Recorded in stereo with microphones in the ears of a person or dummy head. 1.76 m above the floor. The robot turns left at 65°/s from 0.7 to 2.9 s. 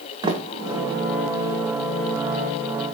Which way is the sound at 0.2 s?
30° right (ahead or behind).